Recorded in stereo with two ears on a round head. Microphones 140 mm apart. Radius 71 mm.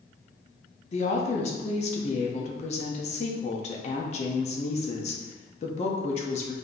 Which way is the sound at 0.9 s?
45° left (ahead or behind).